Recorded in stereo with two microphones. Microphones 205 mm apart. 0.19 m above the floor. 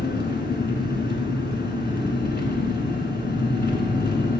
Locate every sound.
0.0 s an engine running: 60° left (ahead or behind), 1.1 m